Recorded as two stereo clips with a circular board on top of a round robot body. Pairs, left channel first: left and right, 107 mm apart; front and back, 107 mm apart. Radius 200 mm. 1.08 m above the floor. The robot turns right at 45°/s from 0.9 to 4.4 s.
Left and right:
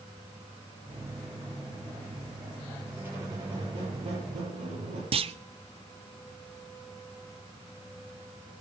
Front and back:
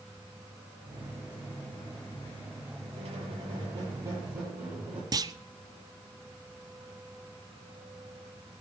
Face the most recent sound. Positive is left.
turn(degrees=-125)